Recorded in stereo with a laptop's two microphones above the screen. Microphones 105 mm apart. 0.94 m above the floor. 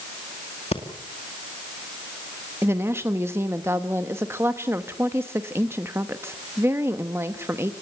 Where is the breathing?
65° left (ahead or behind), 2 m.